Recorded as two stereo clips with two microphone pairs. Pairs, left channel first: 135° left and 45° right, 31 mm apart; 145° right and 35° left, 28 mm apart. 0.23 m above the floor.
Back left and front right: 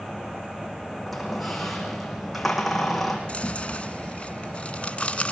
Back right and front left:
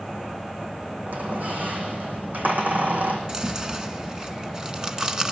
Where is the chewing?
95° left, 1.5 m.